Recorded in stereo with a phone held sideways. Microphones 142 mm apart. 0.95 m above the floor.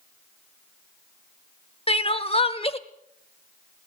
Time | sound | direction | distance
1.9 | crying | 40° left (ahead or behind) | 1.0 m